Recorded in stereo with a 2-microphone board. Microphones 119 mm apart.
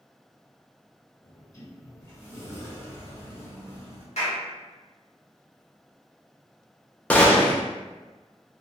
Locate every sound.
1.2 s a sliding door: 25° left (ahead or behind), 1.5 m
4.2 s a clap: 70° left (ahead or behind), 1.1 m
7.1 s a gunshot: 10° left (ahead or behind), 0.5 m